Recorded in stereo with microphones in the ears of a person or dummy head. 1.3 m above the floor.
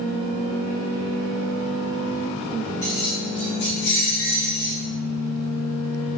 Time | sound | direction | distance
2.8 | keys jangling | 20° left (ahead or behind) | 0.7 m